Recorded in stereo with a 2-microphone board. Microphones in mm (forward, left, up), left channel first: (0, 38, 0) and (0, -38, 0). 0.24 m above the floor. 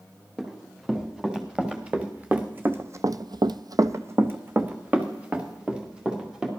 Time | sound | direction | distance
0.4 | running footsteps | 5° right (ahead or behind) | 3.5 m